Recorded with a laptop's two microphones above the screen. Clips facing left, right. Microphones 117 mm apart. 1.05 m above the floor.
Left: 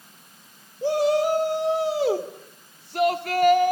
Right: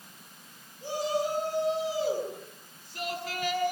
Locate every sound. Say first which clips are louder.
0.8 s a shout: left 9 dB; 75° left (ahead or behind), 4.5 m; by 3.7 s 60° left (ahead or behind), 2.5 m